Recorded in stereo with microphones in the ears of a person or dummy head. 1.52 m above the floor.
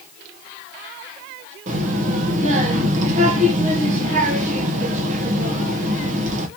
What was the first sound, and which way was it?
A child speaking, 45° right (ahead or behind).